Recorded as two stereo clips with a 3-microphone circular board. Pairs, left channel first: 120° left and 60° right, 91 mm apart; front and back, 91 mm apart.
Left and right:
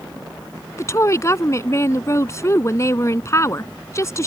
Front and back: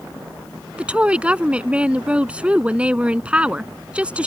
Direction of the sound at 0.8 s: 115° left.